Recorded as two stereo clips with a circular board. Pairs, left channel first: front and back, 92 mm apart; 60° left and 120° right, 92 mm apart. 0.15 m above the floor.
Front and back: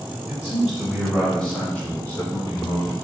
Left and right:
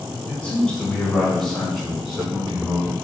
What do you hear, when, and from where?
0.3 s a man speaking: 115° left, 1.8 m; by 2.9 s 45° right, 2.5 m